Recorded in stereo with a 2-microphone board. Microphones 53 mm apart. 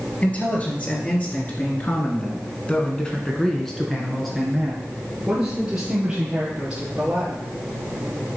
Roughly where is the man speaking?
Left.